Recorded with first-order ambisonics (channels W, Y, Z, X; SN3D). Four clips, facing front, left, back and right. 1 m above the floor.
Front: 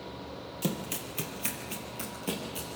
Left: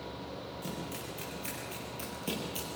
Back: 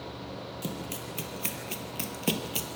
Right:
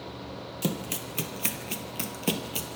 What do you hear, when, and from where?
0.6 s running footsteps: 75° right, 1.9 m; by 2.8 s 150° right, 1.6 m